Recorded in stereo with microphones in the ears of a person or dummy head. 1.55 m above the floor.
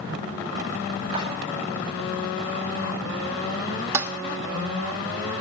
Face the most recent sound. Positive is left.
turn(degrees=-15)  # may be behind; listen again after turning